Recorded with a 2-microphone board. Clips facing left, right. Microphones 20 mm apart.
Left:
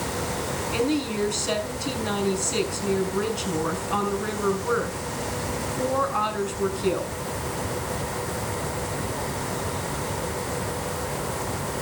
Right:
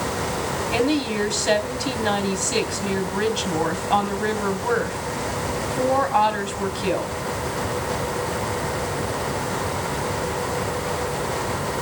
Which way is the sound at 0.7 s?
50° right (ahead or behind).